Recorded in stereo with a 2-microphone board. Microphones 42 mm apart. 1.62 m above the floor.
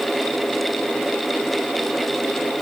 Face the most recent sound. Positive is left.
No sound to turn to.